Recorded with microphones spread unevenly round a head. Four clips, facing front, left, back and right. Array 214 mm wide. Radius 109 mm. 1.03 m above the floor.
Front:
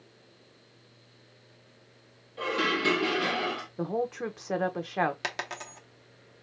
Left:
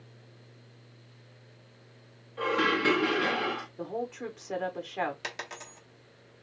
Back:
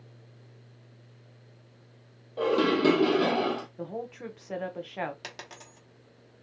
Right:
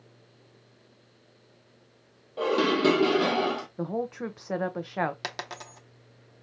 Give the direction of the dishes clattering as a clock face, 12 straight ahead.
5 o'clock.